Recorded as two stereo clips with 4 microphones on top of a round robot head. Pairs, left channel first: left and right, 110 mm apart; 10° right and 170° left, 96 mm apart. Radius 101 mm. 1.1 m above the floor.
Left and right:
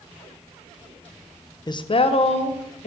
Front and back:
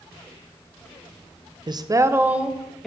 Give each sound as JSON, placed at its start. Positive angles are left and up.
{"t": 1.7, "sound": "a woman speaking", "azimuth_deg": 135, "distance_m": 0.8}